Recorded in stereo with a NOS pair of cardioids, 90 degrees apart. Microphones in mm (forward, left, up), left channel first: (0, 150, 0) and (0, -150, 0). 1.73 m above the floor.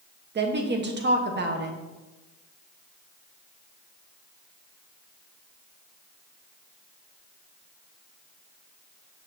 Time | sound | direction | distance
0.3 | a woman speaking | 35° right | 1.5 m